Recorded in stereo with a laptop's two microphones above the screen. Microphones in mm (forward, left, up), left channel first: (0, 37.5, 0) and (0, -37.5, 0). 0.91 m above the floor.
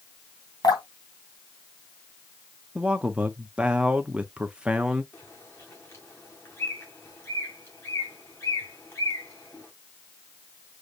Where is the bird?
35° left (ahead or behind), 2 m.